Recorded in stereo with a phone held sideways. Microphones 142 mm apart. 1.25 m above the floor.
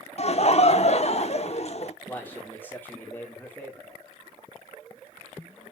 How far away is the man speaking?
About 2.5 m.